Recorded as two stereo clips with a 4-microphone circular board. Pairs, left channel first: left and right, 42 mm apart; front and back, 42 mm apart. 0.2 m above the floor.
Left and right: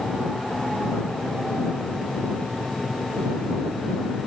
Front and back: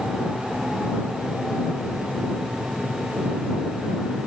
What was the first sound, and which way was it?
Only background noise.